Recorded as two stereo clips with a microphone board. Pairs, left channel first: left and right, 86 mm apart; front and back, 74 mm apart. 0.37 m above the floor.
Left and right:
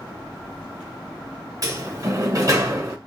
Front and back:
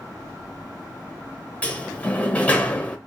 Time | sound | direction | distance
1.6 | a sliding door | 65° right | 1.0 m